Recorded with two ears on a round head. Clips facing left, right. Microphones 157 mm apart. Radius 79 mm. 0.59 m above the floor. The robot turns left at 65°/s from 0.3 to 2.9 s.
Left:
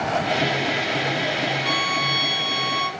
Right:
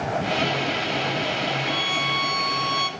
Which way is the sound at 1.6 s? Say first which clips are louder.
Left 2 dB; 85° left.